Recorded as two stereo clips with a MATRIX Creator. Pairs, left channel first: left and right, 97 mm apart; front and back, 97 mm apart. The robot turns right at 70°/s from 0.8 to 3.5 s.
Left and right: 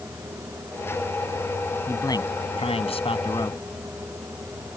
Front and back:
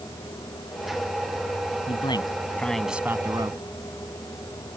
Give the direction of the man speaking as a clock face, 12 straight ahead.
11 o'clock.